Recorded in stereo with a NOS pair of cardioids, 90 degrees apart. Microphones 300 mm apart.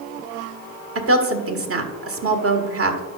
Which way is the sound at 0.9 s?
50° right.